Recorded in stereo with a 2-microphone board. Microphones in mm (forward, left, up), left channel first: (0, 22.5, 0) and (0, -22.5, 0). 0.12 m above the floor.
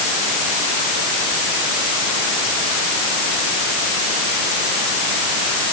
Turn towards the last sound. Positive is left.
No sound to turn to.